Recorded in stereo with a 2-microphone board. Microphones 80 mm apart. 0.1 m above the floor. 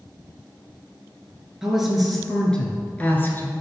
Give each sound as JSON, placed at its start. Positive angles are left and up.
{"t": 1.6, "sound": "a woman speaking", "side_deg": -5, "distance_m": 1.3}